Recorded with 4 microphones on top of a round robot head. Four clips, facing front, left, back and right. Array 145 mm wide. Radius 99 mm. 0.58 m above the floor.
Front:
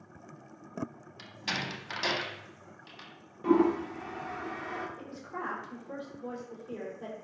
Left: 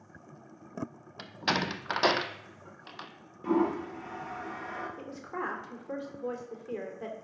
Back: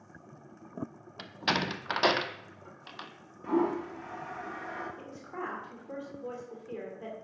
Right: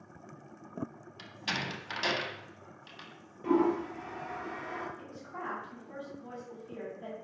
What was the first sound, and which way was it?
A door slam, 130° left.